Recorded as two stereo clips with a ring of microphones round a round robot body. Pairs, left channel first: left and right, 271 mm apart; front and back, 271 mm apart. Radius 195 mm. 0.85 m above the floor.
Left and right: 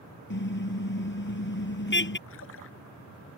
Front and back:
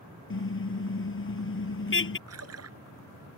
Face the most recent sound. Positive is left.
turn(degrees=150)